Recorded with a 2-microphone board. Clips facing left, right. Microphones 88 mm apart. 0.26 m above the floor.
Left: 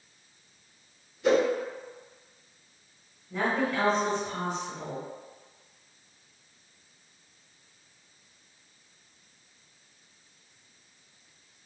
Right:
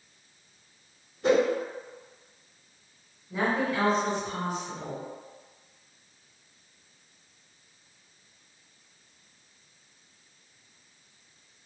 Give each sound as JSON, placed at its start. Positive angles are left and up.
{"t": 1.2, "sound": "a whoosh", "side_deg": -50, "distance_m": 1.8}
{"t": 3.3, "sound": "a woman speaking", "side_deg": -10, "distance_m": 1.3}